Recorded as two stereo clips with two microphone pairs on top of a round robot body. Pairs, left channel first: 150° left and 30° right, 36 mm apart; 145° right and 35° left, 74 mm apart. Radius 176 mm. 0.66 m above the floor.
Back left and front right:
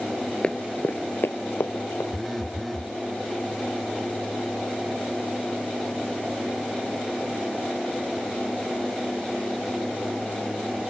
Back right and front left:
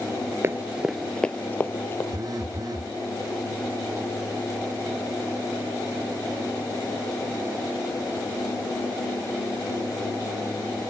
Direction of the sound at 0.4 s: 95° left.